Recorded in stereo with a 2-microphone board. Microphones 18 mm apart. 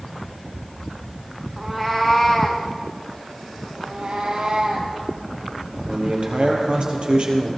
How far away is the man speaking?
About 4 m.